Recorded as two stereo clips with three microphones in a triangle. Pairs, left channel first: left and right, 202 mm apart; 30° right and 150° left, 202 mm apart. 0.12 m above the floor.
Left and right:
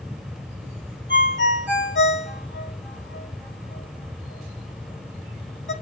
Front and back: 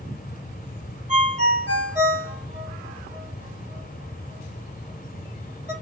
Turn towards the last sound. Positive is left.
turn(degrees=95)